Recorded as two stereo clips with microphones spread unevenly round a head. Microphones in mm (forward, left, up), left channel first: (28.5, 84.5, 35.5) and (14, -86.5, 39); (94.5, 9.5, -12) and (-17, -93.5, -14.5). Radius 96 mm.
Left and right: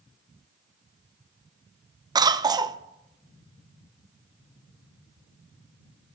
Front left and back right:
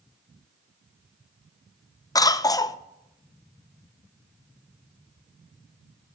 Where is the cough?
25° right, 0.7 m.